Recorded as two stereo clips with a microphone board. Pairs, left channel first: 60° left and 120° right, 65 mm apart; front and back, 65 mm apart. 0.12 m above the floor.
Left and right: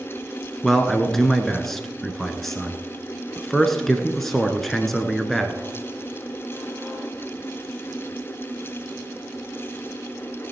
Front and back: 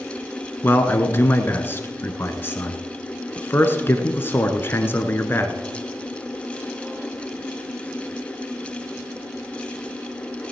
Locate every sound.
0.6 s a man speaking: 25° right, 1.2 m